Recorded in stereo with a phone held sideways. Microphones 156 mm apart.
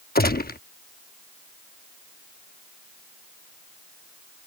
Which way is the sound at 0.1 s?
70° left (ahead or behind).